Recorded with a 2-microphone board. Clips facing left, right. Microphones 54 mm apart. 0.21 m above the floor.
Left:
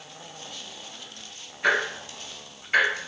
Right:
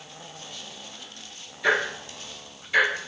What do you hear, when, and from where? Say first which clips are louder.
1.6 s ticking: even; 40° left (ahead or behind), 1.0 m